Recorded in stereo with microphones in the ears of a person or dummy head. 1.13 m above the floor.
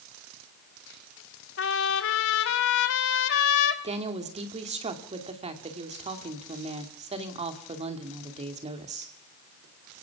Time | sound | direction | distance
1.6 | a trumpet | 65° left (ahead or behind) | 1.5 m
3.8 | a woman speaking | 35° right (ahead or behind) | 2.5 m